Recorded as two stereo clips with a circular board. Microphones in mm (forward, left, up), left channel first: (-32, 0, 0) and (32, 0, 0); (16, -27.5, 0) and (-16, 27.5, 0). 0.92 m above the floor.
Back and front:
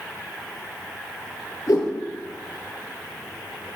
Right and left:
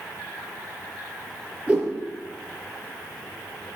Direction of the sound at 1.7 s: 170° right.